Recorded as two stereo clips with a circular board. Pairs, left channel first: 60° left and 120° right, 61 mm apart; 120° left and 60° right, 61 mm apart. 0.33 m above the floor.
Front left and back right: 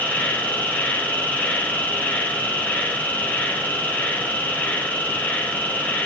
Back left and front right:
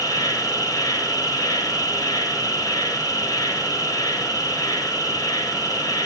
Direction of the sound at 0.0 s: 125° left.